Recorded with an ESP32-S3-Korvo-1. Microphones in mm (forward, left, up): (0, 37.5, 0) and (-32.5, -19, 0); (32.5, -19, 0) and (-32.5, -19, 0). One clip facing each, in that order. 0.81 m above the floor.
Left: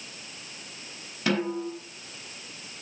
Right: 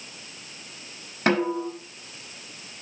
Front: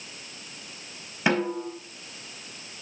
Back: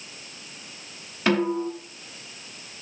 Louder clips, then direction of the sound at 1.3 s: Right 4 dB, back 3 dB; 75° right.